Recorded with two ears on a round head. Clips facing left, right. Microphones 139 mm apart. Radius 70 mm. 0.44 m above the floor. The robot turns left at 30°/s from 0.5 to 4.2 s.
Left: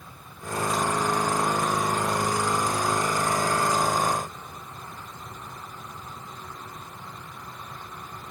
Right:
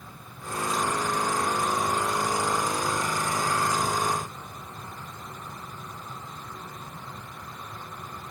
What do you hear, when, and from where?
Only background noise.